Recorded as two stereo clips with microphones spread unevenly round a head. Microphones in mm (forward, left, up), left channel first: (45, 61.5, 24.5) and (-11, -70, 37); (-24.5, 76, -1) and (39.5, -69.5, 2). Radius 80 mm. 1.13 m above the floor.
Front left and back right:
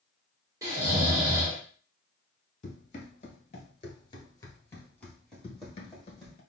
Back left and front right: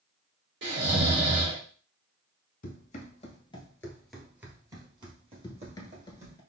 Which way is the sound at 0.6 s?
45° right.